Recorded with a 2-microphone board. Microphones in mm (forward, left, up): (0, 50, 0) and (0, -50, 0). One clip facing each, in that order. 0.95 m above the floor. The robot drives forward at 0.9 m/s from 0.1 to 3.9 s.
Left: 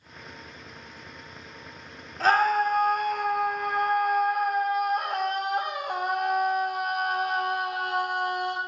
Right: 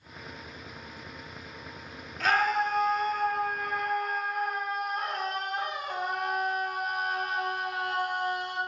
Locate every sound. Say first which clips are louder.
2.2 s a scream: left 4 dB; 35° left (ahead or behind), 1.4 m; by 8.6 s 65° left (ahead or behind), 0.9 m